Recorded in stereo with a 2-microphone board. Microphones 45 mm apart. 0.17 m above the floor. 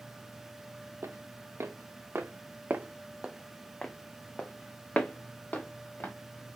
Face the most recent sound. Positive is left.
turn(degrees=45)  # may be behind; listen again after turning